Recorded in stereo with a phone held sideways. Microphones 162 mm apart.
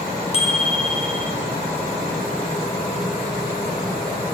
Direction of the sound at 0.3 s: 40° left (ahead or behind).